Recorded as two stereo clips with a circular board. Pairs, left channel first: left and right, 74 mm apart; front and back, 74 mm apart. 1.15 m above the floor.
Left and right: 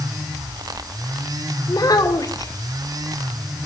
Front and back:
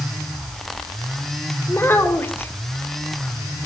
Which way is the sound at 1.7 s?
60° left.